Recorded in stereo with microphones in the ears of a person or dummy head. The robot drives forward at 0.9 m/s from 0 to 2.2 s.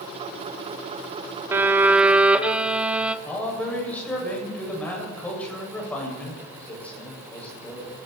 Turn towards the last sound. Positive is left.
turn(degrees=10)  # may be behind; listen again after turning